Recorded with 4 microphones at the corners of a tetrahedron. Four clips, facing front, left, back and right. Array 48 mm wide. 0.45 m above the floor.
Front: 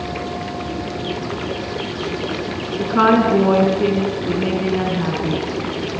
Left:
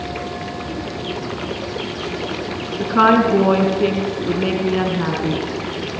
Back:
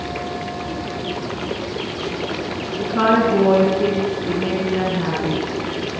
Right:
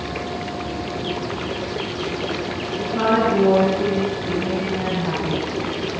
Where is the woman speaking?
60° left, 4.5 m; by 5.4 s 90° left, 5 m.